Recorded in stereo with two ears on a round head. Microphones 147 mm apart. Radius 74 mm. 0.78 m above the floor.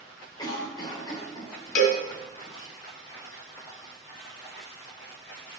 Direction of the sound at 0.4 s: 25° left (ahead or behind).